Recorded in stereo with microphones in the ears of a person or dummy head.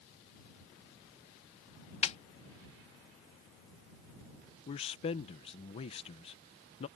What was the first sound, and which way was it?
A snare drum, 40° left (ahead or behind).